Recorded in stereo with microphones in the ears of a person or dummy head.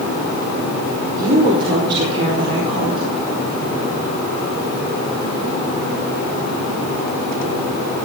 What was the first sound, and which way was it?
A woman speaking, 45° right (ahead or behind).